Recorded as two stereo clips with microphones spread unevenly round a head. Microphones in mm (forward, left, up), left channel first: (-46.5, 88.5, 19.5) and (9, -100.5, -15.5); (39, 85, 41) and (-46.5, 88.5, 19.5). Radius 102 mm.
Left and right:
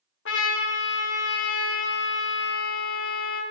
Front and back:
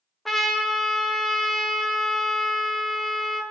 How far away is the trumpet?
About 0.7 m.